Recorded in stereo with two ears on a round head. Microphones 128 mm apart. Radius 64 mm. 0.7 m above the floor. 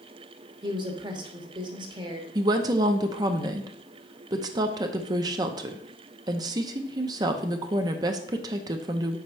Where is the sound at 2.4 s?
25° right (ahead or behind), 0.5 m.